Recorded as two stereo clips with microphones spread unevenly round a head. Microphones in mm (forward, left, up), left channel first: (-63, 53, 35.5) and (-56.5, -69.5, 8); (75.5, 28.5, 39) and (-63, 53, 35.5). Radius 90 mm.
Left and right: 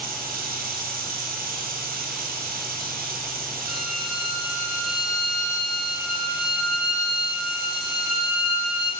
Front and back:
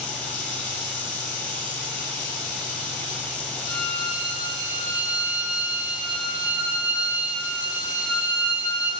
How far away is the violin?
About 3.5 m.